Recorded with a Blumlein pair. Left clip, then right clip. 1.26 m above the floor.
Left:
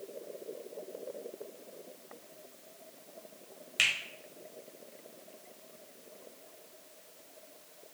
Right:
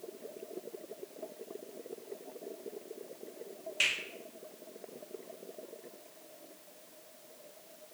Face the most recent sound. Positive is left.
turn(degrees=45)